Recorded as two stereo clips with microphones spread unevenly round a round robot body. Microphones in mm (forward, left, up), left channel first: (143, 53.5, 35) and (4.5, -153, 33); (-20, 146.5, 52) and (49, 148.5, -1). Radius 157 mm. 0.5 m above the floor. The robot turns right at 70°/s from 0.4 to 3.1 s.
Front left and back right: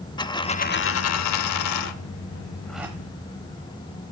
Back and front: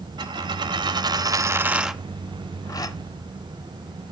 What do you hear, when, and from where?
0.2 s a dropped coin: 20° right, 0.7 m; by 3.0 s 160° left, 0.7 m